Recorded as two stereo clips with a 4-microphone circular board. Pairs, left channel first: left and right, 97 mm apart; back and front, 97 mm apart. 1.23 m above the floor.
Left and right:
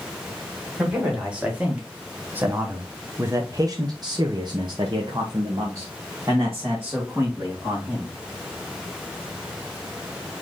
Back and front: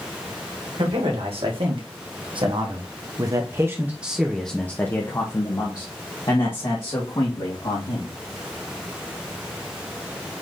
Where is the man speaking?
10° right, 1.9 m; by 8.1 s 155° right, 2 m.